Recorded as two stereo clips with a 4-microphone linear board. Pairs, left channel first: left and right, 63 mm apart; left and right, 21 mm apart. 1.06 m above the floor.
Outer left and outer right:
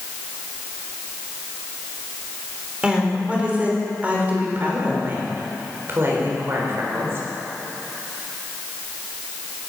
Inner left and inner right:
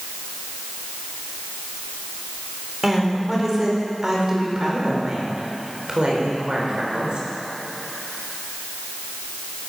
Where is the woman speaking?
15° right (ahead or behind), 4 m; by 7.2 s 45° right (ahead or behind), 4.5 m.